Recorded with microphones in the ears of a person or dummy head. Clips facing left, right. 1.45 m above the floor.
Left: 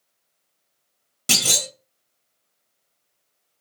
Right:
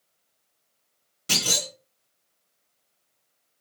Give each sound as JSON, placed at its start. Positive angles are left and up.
{"t": 1.3, "sound": "a clunk", "side_deg": 70, "distance_m": 1.0}